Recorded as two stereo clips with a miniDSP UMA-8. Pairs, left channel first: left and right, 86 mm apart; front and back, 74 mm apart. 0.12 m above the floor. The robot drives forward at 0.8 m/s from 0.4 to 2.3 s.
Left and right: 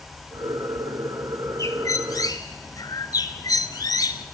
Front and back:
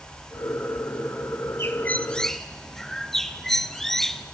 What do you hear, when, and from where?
1.6 s a bird: 45° left, 1.2 m; by 4.2 s 85° left, 1.0 m